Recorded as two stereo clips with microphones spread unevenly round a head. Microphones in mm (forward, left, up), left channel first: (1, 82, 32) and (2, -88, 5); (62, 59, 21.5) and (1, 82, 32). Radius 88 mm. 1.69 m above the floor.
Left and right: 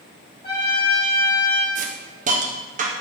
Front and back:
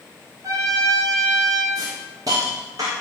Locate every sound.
0.4 s a trumpet: 145° left, 3 m
1.8 s a hiss: 135° right, 1.3 m